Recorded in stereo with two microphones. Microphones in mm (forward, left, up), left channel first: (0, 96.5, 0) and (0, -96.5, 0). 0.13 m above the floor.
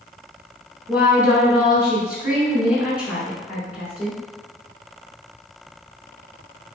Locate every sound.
0.9 s a woman speaking: 5° right (ahead or behind), 1.4 m